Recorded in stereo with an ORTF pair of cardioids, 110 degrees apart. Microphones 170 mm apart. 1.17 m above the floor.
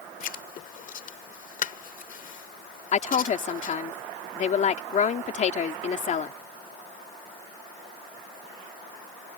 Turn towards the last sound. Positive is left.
turn(degrees=45)